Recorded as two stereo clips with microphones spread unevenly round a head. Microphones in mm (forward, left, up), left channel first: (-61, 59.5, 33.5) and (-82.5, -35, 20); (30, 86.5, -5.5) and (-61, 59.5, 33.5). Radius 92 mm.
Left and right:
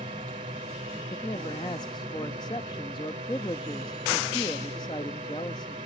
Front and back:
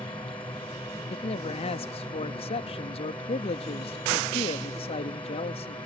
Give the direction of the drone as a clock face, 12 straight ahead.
2 o'clock.